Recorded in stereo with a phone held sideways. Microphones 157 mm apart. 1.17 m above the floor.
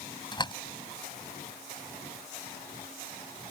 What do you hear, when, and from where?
0.3 s a door slam: 30° left (ahead or behind)